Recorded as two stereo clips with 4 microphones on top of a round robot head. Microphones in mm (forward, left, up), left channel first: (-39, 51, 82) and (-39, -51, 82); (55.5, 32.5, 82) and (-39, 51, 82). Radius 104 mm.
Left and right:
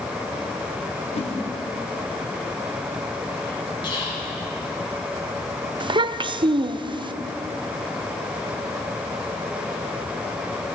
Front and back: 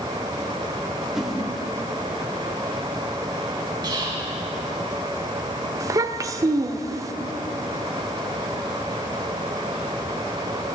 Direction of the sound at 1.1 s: 85° left.